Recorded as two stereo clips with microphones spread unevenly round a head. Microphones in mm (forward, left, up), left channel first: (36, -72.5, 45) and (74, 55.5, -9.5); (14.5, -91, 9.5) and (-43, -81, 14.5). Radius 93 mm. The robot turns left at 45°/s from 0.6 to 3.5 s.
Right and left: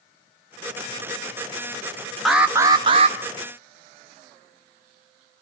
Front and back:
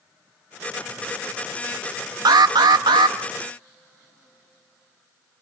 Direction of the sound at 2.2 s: 160° left.